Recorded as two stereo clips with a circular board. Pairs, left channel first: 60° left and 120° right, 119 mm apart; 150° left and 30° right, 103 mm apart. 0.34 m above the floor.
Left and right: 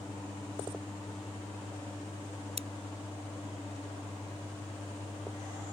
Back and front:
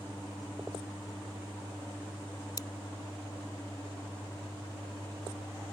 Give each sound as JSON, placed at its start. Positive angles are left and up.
{"t": 2.6, "sound": "scissors", "azimuth_deg": -155}